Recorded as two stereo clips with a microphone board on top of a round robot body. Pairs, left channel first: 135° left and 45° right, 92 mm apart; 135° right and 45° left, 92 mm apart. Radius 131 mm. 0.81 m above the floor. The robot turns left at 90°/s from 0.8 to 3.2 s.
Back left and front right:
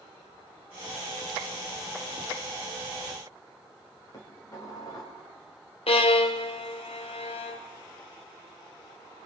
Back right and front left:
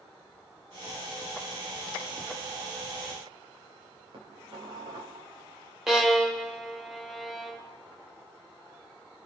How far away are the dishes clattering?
About 4 m.